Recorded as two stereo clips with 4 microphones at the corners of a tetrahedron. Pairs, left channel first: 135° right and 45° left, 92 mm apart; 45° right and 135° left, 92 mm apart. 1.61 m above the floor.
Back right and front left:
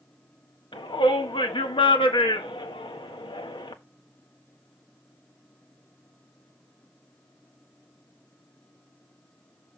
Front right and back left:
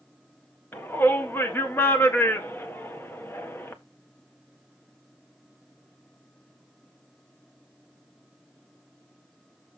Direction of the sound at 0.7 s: 110° right.